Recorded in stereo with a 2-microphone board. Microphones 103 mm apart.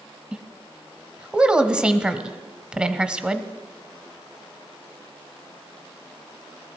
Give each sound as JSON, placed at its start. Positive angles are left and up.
{"t": 0.3, "sound": "a woman speaking", "side_deg": -10, "distance_m": 1.1}